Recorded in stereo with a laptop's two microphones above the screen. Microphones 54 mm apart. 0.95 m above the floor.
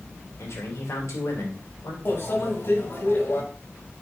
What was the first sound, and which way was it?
A man speaking, 75° left (ahead or behind).